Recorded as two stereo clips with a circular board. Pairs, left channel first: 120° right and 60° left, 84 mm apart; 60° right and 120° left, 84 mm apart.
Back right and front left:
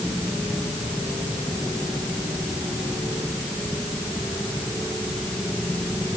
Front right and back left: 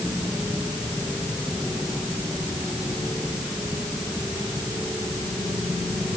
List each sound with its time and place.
Only background noise.